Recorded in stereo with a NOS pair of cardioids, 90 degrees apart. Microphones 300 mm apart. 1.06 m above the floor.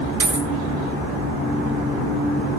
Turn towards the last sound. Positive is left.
turn(degrees=-50)